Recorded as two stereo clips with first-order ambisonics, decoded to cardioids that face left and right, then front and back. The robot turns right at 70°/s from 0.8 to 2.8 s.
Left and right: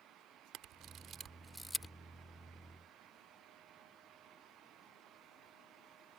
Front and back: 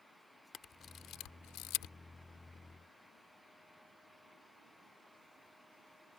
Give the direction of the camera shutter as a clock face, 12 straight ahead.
2 o'clock.